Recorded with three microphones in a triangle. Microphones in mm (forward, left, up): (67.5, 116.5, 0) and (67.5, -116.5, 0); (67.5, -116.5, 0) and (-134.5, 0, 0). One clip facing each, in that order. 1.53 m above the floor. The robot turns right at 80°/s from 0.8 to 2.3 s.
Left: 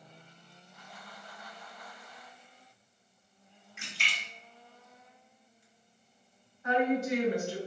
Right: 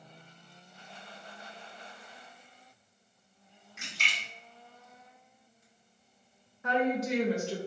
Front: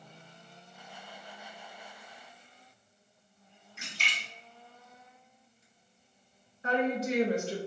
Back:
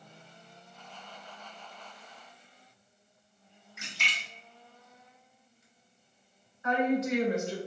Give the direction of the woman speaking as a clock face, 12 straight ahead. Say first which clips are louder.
Left 1 dB, back 2 dB; 3 o'clock.